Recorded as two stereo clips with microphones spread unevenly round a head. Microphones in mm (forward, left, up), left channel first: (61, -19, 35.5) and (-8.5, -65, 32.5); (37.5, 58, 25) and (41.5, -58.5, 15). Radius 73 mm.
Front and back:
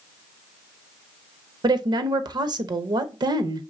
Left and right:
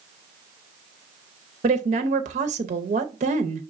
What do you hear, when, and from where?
1.6 s a woman speaking: 115° right, 0.6 m